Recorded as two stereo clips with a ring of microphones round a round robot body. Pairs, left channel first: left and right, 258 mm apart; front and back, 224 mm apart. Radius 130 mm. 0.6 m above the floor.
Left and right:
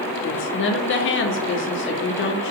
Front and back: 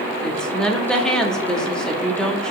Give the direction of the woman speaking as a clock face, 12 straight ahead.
9 o'clock.